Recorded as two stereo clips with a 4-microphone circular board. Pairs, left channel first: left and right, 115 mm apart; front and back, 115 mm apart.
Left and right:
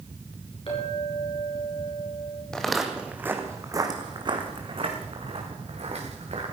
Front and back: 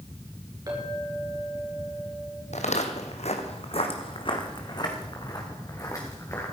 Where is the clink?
125° left, 5 m.